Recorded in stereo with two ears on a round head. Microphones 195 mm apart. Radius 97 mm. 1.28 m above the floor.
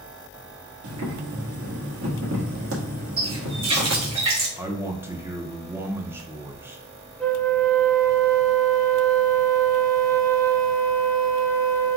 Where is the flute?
5° left (ahead or behind), 0.6 m.